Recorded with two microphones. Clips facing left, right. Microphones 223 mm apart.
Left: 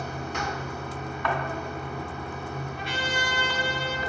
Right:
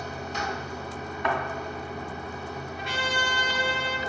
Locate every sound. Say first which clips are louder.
0.0 s running water: left 1 dB; 55° left (ahead or behind), 0.9 m
1.2 s a thud: right 1 dB; 20° right (ahead or behind), 1.7 m
2.8 s a trumpet: right 1 dB; 50° right (ahead or behind), 1.8 m